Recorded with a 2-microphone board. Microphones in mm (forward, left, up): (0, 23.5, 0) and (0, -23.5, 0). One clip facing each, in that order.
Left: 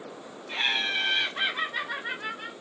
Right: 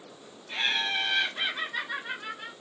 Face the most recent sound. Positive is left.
turn(degrees=15)  # may be behind; listen again after turning